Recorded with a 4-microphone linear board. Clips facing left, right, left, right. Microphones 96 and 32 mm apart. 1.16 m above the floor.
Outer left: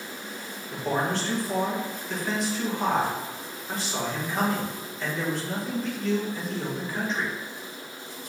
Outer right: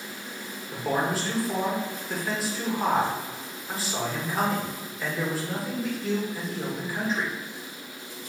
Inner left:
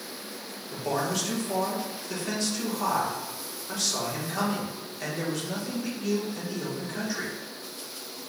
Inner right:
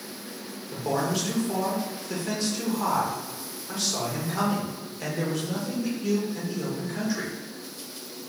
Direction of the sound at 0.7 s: 5° right (ahead or behind).